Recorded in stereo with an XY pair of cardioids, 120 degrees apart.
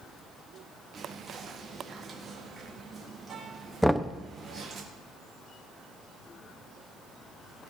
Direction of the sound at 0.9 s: 30° right.